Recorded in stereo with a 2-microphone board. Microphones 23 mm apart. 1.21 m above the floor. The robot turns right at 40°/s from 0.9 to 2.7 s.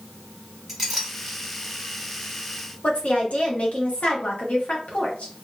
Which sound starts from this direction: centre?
A clink, at 0.7 s.